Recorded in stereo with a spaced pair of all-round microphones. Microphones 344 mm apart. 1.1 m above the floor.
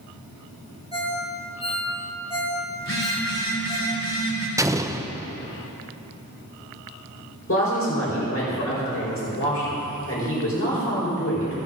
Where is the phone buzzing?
50° left (ahead or behind), 3 m.